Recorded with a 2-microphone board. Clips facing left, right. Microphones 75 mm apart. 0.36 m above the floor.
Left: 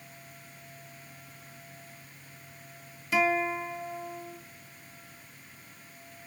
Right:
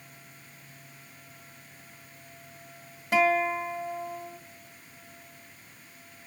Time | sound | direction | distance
3.1 | a guitar | 50° right (ahead or behind) | 1.2 m